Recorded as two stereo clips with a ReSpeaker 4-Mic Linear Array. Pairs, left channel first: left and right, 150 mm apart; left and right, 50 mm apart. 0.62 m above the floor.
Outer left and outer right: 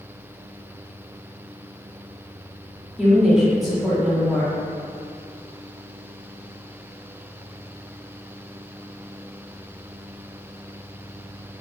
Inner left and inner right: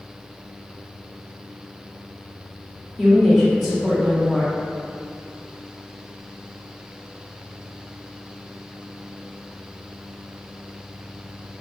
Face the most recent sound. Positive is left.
turn(degrees=0)  # may be behind; listen again after turning